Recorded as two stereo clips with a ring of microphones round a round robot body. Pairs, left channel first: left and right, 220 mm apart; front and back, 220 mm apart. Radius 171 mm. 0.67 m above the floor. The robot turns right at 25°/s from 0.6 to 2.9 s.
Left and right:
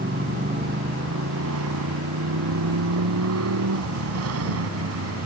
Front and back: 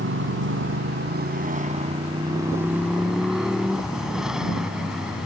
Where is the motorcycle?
150° right; by 5.3 s 95° right.